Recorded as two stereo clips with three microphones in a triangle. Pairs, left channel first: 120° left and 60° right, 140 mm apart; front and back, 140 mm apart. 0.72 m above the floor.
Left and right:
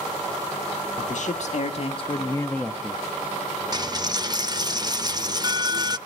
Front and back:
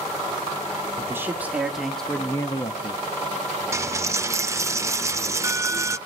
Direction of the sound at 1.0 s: 110° left.